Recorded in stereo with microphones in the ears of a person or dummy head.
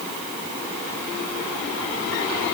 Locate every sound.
Only background noise.